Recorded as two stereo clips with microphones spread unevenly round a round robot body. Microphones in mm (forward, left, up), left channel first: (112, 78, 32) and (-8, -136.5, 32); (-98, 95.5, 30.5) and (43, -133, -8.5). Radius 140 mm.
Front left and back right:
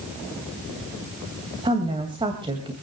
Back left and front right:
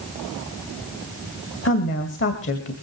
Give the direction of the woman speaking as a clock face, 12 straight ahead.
6 o'clock.